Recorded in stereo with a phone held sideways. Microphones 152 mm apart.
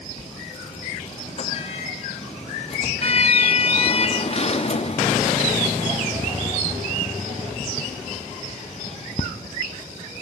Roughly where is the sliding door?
Left.